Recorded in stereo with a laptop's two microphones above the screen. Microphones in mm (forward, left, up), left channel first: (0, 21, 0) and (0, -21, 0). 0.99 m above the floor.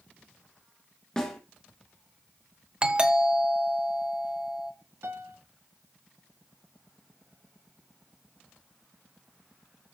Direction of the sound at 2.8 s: 25° right (ahead or behind).